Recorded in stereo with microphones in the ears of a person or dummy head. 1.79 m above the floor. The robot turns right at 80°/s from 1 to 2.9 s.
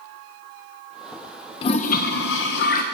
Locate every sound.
1.6 s a toilet flushing: 35° left, 1.2 m; by 2.8 s 130° left, 1.2 m